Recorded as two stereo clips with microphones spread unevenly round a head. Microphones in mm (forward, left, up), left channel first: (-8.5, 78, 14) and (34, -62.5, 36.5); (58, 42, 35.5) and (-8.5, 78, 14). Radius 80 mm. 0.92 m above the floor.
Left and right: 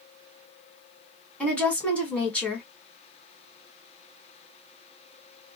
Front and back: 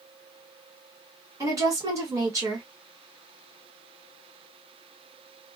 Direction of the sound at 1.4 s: Straight behind.